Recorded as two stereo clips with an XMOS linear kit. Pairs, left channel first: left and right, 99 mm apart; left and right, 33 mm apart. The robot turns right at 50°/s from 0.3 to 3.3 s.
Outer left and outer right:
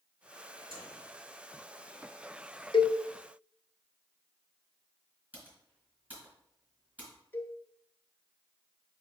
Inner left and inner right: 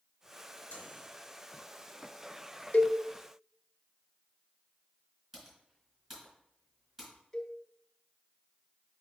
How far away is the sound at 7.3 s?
About 0.9 m.